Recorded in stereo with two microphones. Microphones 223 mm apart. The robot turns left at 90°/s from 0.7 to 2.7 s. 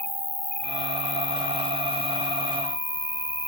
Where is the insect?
145° right; by 3.5 s 35° left.